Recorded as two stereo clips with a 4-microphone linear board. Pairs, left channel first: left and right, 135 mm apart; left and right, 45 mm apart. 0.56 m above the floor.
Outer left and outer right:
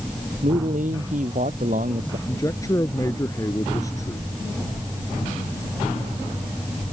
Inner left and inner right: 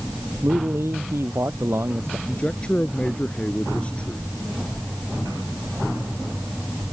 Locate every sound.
0.4 s a man speaking: 80° right
2.3 s a man speaking: 25° left (ahead or behind)